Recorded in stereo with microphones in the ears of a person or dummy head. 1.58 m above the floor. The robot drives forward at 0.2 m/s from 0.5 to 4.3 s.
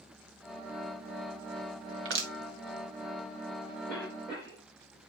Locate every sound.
2.0 s crushing: 75° right (ahead or behind), 1.7 m
3.9 s a cough: 70° right (ahead or behind), 7 m